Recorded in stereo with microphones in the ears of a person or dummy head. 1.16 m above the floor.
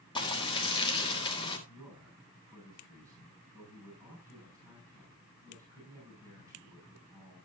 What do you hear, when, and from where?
0.1 s frying: 20° left (ahead or behind), 3.5 m
1.7 s a man speaking: 15° right (ahead or behind), 7.5 m